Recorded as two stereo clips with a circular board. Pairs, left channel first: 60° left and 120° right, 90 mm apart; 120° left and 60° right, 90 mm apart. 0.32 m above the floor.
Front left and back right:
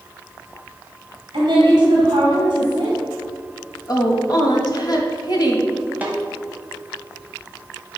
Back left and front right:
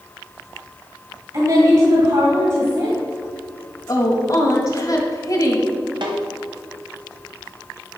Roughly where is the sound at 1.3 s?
Right.